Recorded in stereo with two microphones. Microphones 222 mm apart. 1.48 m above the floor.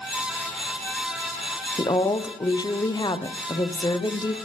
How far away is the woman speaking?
About 0.6 m.